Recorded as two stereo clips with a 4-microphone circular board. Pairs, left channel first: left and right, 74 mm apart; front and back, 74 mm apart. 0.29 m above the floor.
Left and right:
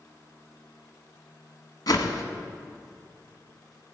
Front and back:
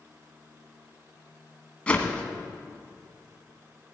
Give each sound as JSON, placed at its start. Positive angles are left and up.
{"t": 1.9, "sound": "a whoosh", "azimuth_deg": 70, "distance_m": 1.1}